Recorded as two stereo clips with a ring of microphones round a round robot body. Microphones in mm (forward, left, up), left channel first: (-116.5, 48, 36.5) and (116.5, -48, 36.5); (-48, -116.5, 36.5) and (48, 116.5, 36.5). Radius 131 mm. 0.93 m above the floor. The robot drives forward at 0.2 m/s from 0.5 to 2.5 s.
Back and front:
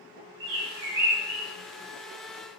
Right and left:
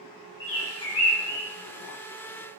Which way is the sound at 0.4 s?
70° right.